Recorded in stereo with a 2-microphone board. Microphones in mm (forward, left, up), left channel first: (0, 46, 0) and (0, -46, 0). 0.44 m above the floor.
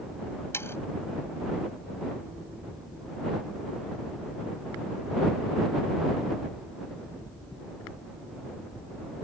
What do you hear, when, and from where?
0.5 s sawing: 25° left (ahead or behind)